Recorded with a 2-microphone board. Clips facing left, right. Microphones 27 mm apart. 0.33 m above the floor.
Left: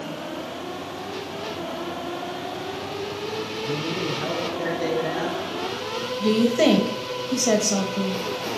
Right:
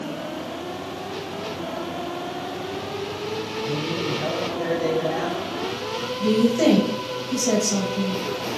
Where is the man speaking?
45° left (ahead or behind), 3.5 m.